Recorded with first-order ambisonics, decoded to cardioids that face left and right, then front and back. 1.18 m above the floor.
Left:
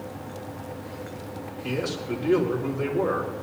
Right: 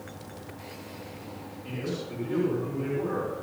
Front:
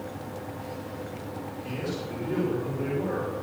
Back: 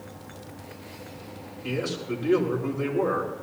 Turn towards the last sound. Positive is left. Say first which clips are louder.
# left 6 dB, back 6 dB
turn(degrees=130)